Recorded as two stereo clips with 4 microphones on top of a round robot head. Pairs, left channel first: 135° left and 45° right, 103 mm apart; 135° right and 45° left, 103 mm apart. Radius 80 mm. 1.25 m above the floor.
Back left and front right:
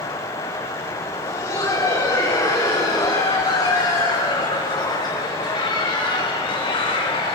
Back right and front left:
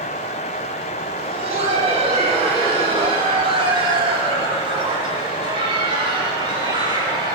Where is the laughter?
75° left, 10 m; by 7.4 s 95° left, 9.5 m.